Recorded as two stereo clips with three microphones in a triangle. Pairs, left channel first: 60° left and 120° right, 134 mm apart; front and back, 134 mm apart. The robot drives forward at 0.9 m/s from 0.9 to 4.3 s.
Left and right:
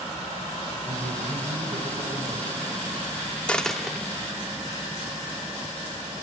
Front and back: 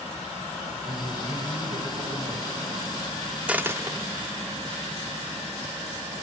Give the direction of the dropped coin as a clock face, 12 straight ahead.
8 o'clock.